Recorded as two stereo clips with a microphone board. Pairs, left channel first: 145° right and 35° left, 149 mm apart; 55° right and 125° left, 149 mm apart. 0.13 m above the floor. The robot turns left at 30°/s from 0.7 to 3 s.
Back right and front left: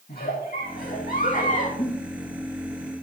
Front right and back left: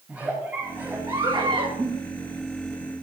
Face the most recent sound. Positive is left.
turn(degrees=145)